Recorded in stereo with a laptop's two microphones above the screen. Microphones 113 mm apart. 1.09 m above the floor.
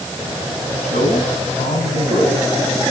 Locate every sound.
0.8 s a man speaking: 85° left, 9 m